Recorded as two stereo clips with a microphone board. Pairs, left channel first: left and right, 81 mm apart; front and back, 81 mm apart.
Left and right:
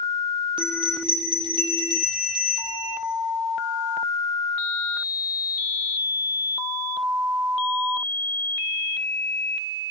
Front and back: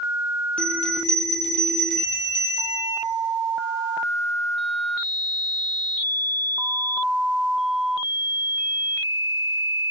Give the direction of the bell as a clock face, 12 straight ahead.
3 o'clock.